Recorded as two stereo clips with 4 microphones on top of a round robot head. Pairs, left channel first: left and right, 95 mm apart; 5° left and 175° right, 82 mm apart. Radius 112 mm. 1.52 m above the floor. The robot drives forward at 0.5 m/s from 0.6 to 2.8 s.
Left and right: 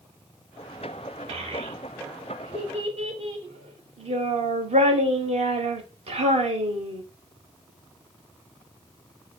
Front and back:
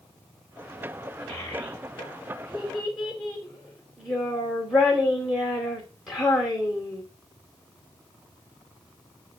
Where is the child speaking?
75° right, 4 m; by 7.0 s 85° right, 4 m.